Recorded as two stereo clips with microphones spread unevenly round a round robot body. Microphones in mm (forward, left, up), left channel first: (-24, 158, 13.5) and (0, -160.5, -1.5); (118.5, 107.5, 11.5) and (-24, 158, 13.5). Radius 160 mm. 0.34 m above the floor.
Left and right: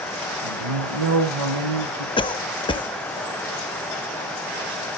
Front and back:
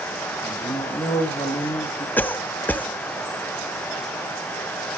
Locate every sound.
0.4 s a man speaking: 90° right, 6 m
2.2 s a cough: 40° left, 0.9 m